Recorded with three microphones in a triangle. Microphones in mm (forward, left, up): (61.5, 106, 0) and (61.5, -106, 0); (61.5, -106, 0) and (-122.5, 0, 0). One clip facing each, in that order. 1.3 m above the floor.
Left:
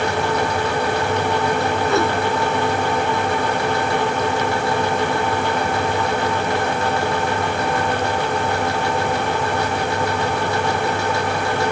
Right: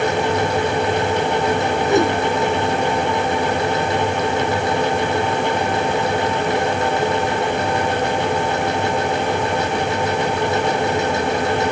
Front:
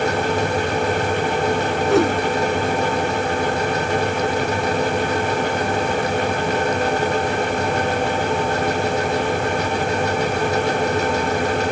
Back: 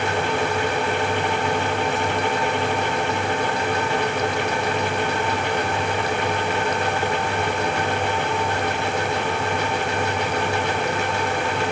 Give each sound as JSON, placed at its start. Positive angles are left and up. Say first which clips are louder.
{"t": 1.9, "sound": "a whoosh", "louder": "right 4 dB, front 8 dB", "azimuth_deg": -20}